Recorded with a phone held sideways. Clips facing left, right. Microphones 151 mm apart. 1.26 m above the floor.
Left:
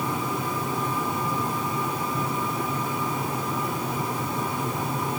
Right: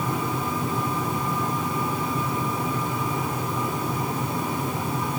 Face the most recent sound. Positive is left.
No sound to turn to.